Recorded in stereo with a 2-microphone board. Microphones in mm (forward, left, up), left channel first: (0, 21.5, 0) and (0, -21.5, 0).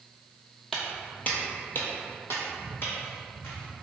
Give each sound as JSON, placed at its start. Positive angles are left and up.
{"t": 0.7, "sound": "footsteps", "side_deg": 10, "distance_m": 0.6}